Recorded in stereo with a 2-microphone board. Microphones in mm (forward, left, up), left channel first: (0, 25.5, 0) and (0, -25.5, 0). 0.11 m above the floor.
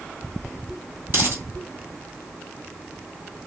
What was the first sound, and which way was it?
A dropped coin, 45° right (ahead or behind).